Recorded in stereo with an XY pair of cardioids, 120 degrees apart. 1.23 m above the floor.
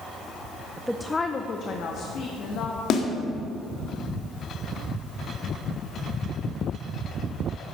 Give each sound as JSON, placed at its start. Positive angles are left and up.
{"t": 0.8, "sound": "a woman speaking", "azimuth_deg": -15, "distance_m": 0.5}
{"t": 2.9, "sound": "a snare drum", "azimuth_deg": 55, "distance_m": 1.9}